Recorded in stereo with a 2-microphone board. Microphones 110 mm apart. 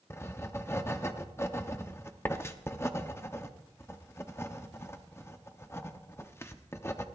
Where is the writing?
25° left (ahead or behind), 0.8 m.